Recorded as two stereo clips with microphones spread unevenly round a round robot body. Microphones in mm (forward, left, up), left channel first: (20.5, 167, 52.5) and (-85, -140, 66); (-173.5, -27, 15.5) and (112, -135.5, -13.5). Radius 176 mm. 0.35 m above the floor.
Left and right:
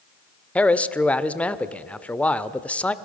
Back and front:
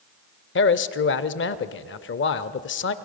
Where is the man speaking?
150° left, 0.9 m.